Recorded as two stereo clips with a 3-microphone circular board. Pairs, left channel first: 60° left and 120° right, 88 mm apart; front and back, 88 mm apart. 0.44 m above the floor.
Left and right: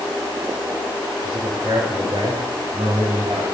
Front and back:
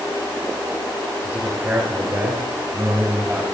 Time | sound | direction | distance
1.2 | a man speaking | 120° right | 4.5 m